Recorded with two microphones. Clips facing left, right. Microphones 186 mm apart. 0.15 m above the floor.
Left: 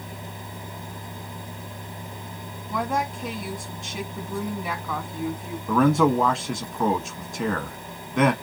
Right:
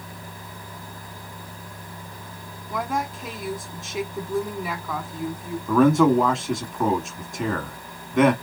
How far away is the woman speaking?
About 1.4 m.